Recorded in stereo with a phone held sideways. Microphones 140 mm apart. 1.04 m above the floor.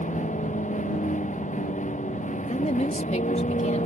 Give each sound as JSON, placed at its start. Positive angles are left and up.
{"t": 0.0, "sound": "a vehicle", "side_deg": 60}
{"t": 2.4, "sound": "a woman speaking", "side_deg": 55}